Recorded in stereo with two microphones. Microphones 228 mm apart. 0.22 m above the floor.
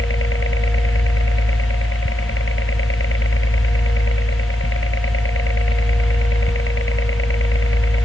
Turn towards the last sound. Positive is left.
turn(degrees=60)  # may be behind; listen again after turning